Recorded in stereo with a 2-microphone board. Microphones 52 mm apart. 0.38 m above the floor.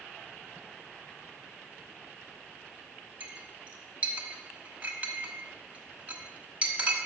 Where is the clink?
25° right (ahead or behind), 1.2 m.